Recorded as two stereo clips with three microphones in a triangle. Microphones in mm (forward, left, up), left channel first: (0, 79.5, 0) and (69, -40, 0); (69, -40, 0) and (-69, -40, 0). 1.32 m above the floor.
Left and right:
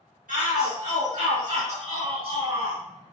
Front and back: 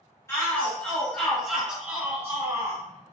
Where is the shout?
70° right, 1.9 m; by 2.8 s 115° right, 2.5 m.